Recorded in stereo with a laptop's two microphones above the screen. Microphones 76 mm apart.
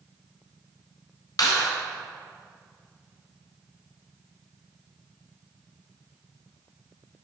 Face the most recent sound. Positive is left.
turn(degrees=65)  # may be behind; listen again after turning